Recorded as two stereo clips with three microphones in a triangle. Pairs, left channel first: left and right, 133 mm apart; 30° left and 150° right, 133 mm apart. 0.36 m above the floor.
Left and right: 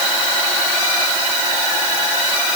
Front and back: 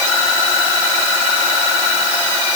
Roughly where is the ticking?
I don't hear ticking.